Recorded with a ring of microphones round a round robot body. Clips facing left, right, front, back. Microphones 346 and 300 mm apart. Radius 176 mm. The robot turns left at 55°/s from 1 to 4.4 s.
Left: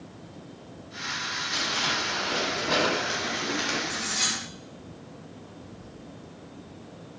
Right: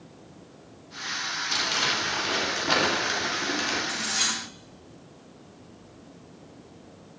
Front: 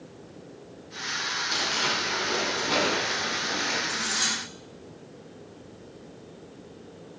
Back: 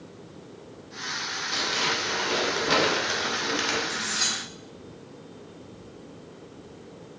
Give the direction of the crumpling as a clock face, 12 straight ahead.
2 o'clock.